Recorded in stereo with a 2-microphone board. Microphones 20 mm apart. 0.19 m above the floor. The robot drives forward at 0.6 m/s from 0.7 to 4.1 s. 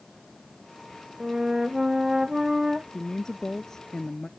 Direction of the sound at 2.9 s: 35° left (ahead or behind).